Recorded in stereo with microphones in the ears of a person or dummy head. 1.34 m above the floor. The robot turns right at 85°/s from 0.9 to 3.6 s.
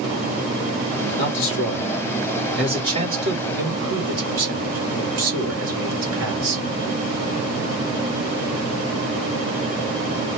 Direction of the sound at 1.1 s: 45° left.